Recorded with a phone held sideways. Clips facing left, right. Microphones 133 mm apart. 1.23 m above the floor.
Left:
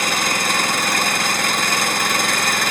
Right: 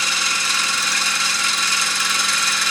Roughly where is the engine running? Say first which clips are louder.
Left 6 dB; left.